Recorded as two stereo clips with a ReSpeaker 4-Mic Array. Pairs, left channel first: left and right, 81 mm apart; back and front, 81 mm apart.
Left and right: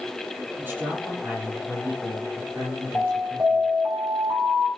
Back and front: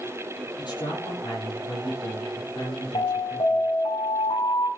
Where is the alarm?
160° right, 9.5 m.